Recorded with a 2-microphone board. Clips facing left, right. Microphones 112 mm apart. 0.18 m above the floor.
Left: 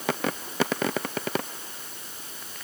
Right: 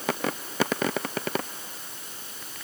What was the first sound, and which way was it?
Only background noise.